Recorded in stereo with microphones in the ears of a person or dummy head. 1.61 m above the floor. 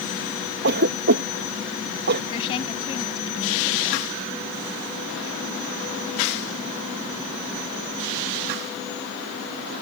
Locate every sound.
0.6 s a cough: 60° right (ahead or behind)
2.3 s a woman speaking: 30° left (ahead or behind)